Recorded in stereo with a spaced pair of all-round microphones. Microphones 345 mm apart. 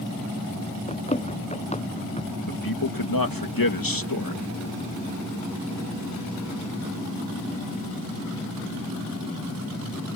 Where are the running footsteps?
20° left (ahead or behind).